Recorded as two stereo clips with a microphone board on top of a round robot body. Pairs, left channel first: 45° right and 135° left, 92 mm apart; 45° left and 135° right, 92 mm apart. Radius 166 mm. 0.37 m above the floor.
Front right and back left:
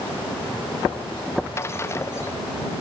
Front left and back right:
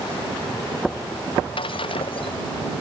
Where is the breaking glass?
20° left.